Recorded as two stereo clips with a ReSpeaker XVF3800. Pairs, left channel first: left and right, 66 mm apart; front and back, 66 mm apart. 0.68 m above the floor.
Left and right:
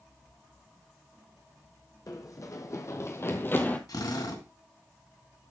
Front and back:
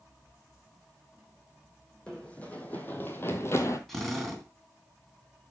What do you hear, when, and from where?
2.1 s running footsteps: 70° left, 1.7 m; by 3.8 s 30° left, 1.2 m
3.9 s a drill: 90° left, 2.5 m